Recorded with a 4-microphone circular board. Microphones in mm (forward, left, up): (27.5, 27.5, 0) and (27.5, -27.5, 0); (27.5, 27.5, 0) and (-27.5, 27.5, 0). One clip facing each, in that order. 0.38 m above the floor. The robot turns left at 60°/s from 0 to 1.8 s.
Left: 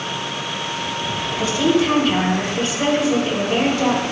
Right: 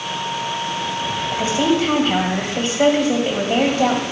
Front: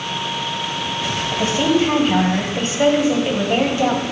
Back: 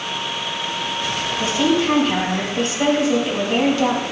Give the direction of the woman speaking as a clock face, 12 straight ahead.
1 o'clock.